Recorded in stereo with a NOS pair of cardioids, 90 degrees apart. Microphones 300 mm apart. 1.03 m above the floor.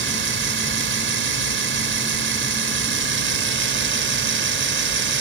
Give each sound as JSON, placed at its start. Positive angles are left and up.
{"t": 0.0, "sound": "a machine running", "azimuth_deg": -40}